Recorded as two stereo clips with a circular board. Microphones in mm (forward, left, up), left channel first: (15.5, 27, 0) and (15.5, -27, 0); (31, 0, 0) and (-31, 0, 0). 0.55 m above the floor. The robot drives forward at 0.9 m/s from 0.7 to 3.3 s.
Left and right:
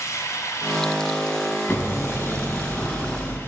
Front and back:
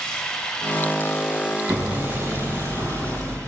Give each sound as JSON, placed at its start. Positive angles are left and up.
{"t": 0.0, "sound": "running water", "azimuth_deg": 80, "distance_m": 1.7}
{"t": 1.7, "sound": "hammering", "azimuth_deg": 145, "distance_m": 3.5}